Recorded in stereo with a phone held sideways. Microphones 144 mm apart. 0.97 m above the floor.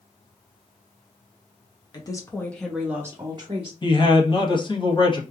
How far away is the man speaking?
About 1.1 m.